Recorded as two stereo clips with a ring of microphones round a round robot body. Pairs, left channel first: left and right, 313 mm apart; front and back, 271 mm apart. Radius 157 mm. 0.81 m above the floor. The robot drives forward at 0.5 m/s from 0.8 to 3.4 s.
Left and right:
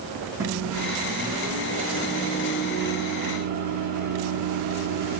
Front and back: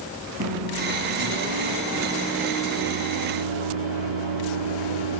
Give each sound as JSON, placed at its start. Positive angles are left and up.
{"t": 0.4, "sound": "a microwave", "azimuth_deg": -140, "distance_m": 3.5}